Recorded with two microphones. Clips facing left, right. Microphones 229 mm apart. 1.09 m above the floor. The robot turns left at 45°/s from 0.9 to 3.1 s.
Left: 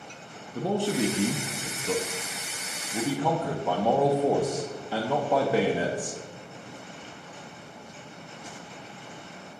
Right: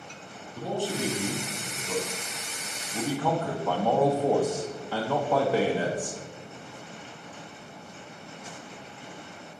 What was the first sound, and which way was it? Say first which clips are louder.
A man speaking: left 4 dB; 110° left.